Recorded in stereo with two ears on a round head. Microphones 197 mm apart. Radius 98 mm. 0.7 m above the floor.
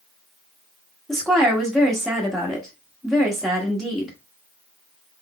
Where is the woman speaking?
Centre (ahead or behind), 1.1 m.